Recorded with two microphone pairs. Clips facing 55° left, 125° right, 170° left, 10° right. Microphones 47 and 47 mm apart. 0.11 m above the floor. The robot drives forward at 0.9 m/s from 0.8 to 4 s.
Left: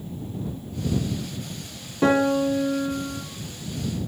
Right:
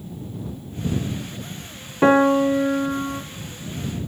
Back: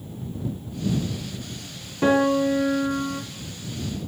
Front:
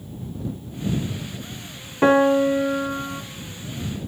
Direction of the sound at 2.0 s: 65° right.